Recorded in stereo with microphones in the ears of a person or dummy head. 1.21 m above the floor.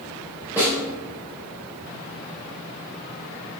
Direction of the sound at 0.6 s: 15° right (ahead or behind).